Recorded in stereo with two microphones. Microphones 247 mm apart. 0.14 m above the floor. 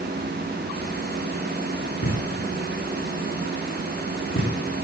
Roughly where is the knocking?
Left.